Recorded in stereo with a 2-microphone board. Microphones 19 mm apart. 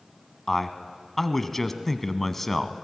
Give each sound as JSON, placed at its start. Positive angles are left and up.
{"t": 0.5, "sound": "a man speaking", "side_deg": 15, "distance_m": 1.1}